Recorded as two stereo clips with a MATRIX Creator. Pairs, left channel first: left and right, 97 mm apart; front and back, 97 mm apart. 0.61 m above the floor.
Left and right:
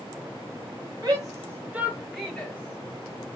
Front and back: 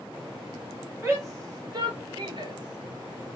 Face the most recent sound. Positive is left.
turn(degrees=135)